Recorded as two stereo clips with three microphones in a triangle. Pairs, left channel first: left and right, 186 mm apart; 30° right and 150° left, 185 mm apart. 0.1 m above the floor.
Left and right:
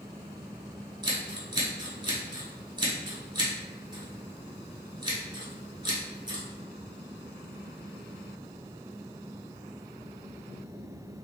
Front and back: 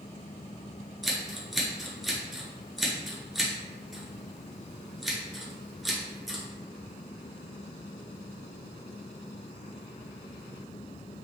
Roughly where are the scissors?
Behind right.